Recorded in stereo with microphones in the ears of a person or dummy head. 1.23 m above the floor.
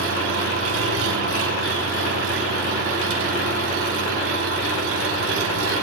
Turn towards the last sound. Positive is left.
turn(degrees=-75)  # may be behind; listen again after turning